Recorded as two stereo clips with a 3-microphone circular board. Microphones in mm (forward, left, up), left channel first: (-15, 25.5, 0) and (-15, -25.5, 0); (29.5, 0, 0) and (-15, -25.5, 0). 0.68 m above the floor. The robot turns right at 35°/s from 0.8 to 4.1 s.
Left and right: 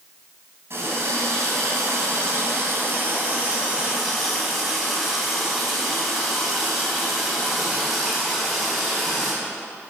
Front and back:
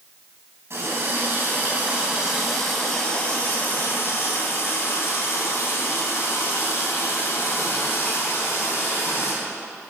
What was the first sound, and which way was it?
A running tap, 125° right.